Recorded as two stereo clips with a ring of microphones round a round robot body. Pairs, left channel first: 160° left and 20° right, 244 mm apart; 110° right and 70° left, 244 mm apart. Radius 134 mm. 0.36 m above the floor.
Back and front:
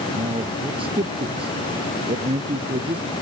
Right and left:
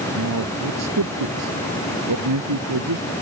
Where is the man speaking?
45° left.